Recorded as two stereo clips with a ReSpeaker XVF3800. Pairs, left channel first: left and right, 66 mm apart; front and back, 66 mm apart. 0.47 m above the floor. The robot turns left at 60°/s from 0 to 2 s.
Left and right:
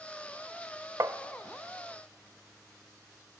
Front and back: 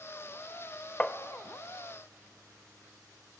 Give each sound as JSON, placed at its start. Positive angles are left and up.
{"t": 1.0, "sound": "tapping", "azimuth_deg": -70, "distance_m": 0.8}